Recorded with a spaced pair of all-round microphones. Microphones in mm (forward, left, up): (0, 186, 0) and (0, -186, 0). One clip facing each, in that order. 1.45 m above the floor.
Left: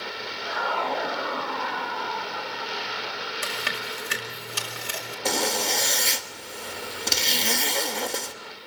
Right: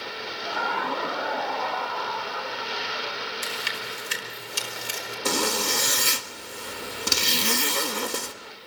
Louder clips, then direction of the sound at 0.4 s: Left 1 dB; 55° right (ahead or behind).